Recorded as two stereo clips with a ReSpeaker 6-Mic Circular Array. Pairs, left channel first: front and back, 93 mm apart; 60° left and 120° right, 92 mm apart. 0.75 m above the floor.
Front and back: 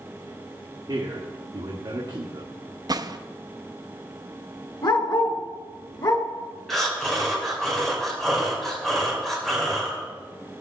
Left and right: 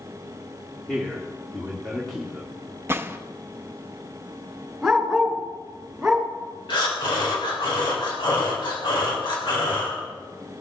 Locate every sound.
0.9 s a man speaking: 145° left, 1.8 m
2.9 s a gunshot: 175° right, 0.5 m
4.8 s a dog barking: 35° right, 2.5 m
6.7 s breathing: 85° left, 3.5 m